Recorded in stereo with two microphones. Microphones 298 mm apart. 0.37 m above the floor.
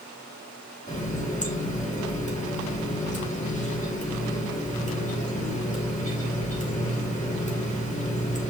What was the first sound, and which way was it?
A running tap, 25° left (ahead or behind).